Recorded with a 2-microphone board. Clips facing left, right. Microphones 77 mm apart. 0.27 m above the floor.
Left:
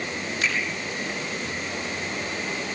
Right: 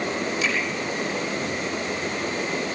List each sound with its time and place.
0.4 s a finger snap: 50° left (ahead or behind), 8.5 m